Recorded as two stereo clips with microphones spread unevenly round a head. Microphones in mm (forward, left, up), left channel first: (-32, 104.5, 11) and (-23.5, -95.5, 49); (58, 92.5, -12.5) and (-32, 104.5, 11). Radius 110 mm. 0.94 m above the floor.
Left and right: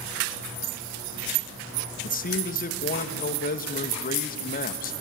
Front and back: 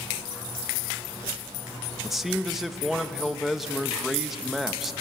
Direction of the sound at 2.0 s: 75° left.